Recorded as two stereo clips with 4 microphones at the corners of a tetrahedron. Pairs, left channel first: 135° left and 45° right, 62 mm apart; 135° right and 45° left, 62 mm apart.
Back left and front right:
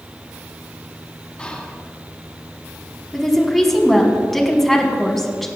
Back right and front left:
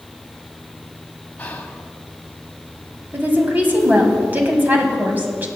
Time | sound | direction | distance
1.4 | whispering | 170° right | 1.1 m
3.1 | a woman speaking | 50° left | 1.3 m